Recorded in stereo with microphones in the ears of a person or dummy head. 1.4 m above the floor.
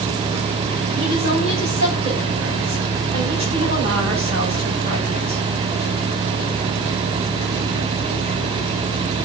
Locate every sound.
0.9 s a woman speaking: 40° right (ahead or behind), 5 m